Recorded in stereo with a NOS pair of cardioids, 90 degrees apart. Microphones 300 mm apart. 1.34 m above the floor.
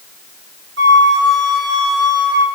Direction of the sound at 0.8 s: 40° right.